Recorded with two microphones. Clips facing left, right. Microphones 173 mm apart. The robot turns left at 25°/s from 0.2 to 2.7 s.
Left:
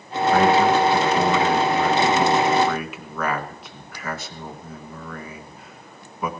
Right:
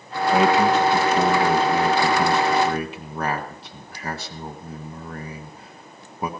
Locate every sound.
0.3 s a man speaking: 15° right (ahead or behind), 1.7 m; by 6.3 s 35° right (ahead or behind), 1.7 m